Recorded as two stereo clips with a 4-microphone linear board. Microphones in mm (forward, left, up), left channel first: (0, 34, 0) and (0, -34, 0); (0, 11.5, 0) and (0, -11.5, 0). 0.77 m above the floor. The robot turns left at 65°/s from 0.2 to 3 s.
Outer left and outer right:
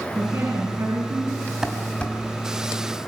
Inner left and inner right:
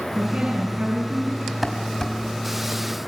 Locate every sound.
0.1 s a woman speaking: 40° right, 9.5 m; by 1.5 s 125° right, 9.5 m
1.6 s dishes clattering: 10° right (ahead or behind), 3.5 m; by 2.1 s 25° left (ahead or behind), 3.5 m